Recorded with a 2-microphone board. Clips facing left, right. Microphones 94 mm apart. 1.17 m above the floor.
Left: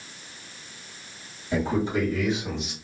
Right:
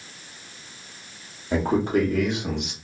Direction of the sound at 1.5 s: 45° right (ahead or behind).